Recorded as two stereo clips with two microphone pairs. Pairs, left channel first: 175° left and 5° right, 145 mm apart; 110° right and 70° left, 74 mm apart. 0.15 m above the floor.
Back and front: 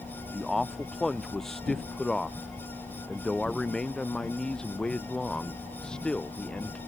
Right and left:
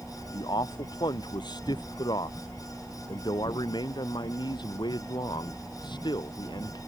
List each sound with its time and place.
0.3 s a man speaking: 95° right; by 6.8 s 100° right